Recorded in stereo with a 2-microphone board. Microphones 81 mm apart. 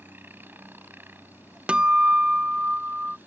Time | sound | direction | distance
0.0 | a helicopter | 25° right (ahead or behind) | ?
1.7 | a guitar | 15° right (ahead or behind) | ?